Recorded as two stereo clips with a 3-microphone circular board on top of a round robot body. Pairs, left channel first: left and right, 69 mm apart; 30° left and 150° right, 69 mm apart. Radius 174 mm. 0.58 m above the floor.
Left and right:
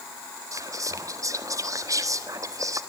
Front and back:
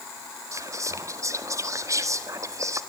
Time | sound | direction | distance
0.5 | whispering | 120° right | 1.9 m